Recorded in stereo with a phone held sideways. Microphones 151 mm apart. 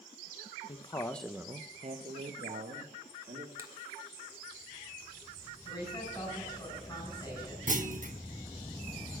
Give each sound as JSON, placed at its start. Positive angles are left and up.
{"t": 0.7, "sound": "a man speaking", "side_deg": 40, "distance_m": 0.6}
{"t": 3.6, "sound": "a finger snap", "side_deg": -20, "distance_m": 1.6}
{"t": 5.7, "sound": "a woman speaking", "side_deg": 25, "distance_m": 7.0}
{"t": 7.7, "sound": "a clunk", "side_deg": -55, "distance_m": 0.8}